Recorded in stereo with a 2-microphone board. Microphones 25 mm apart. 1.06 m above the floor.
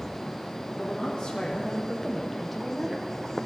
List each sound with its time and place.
0.8 s a woman speaking: 35° left (ahead or behind), 1.5 m; by 3.1 s 15° right (ahead or behind), 0.8 m